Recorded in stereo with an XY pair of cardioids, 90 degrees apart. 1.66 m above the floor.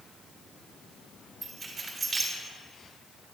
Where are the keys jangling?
30° right, 3.5 m.